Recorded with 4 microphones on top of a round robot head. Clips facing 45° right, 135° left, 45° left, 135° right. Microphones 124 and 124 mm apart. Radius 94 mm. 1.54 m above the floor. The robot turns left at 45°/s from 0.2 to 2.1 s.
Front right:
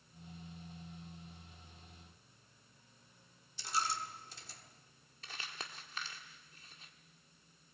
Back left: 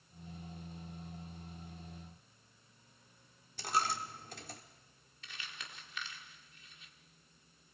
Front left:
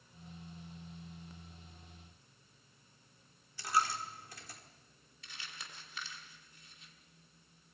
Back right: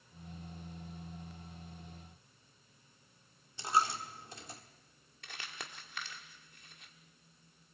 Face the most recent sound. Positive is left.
turn(degrees=-100)